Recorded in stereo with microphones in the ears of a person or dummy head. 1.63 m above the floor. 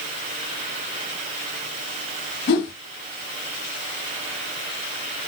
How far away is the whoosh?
About 1.3 m.